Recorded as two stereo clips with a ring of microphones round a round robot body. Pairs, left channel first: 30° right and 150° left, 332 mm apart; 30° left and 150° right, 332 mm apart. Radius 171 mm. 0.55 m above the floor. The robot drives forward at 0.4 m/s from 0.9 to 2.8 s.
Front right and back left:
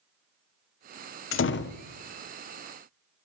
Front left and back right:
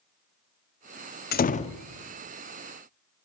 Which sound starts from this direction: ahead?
A door slam, at 1.3 s.